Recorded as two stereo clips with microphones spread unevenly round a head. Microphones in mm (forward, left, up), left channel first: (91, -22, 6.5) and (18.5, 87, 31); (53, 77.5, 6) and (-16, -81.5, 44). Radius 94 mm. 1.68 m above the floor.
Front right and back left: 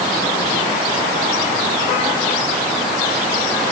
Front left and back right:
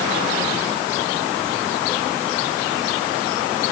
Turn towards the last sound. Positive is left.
No sound to turn to.